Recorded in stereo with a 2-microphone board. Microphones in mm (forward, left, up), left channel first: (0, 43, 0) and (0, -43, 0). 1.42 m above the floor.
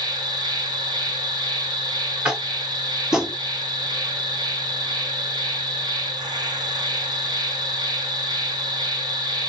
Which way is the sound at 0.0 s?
55° right (ahead or behind).